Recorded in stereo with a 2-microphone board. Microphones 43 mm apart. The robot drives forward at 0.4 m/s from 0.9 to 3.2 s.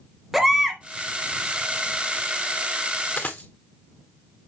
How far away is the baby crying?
About 1.4 m.